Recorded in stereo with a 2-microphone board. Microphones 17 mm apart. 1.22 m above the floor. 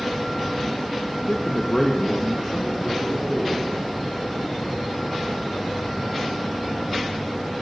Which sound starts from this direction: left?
A man speaking, at 1.3 s.